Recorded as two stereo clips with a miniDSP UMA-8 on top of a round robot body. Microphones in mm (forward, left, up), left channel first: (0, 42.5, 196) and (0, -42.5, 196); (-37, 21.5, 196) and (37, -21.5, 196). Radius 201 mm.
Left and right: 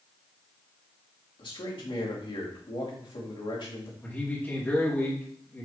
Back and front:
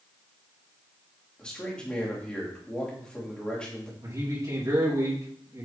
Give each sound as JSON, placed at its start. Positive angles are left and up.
{"t": 1.4, "sound": "a man speaking", "azimuth_deg": 70, "distance_m": 3.5}
{"t": 4.0, "sound": "a man speaking", "azimuth_deg": 20, "distance_m": 3.5}